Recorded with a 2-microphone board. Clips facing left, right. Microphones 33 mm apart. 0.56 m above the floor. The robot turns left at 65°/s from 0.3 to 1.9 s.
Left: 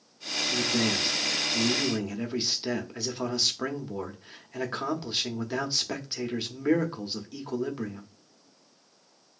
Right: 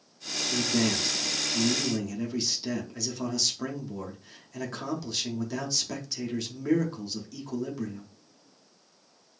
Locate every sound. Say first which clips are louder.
0.5 s a man speaking: even; 165° right, 0.6 m; by 8.1 s 105° left, 0.6 m